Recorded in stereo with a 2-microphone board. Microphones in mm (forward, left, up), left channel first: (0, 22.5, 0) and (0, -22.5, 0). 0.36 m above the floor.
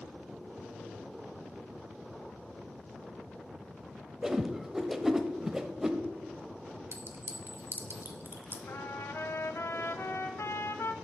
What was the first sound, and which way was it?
A whoosh, 10° right (ahead or behind).